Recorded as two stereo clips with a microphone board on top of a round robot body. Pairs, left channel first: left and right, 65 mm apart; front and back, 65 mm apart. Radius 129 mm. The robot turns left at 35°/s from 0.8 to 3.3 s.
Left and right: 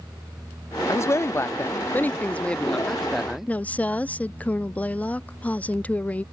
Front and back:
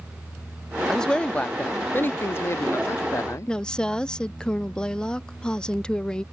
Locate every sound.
0.9 s a man speaking: 80° left; by 3.5 s 5° right
3.5 s a woman speaking: 60° left